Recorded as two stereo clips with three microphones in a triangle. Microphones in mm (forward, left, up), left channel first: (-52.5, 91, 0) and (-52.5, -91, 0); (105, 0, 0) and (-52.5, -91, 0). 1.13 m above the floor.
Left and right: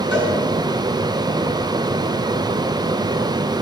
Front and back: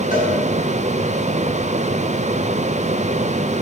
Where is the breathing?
I don't hear breathing.